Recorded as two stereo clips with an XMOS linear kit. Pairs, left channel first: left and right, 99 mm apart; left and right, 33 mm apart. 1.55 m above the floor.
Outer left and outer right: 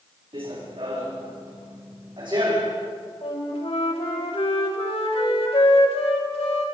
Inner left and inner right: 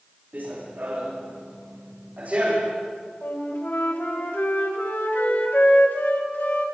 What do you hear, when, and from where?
0.3 s running footsteps: 65° right (ahead or behind), 7 m; by 2.8 s 50° right (ahead or behind), 6.5 m
3.2 s a flute: 80° left, 3.5 m